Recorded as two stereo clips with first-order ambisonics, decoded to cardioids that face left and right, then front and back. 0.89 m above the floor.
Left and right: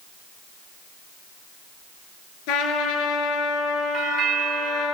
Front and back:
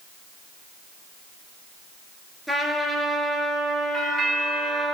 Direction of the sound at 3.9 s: 125° right.